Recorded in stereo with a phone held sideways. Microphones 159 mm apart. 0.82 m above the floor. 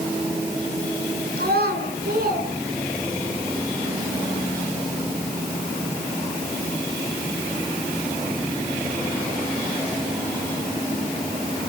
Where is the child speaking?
85° right, 4.5 m.